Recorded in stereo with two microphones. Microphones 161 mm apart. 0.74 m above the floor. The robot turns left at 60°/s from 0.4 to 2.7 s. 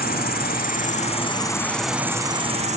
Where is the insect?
85° left, 1.2 m; by 2.8 s 50° right, 1.2 m.